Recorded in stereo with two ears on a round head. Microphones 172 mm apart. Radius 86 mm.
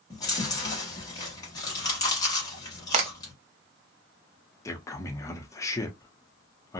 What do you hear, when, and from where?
0.1 s chewing: 20° left (ahead or behind), 1.1 m
2.9 s a crack: 35° right (ahead or behind), 0.7 m
4.7 s a man speaking: 15° left (ahead or behind), 0.6 m